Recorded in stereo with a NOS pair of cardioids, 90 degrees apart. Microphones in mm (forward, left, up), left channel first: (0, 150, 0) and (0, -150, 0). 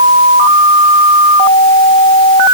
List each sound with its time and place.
Only background noise.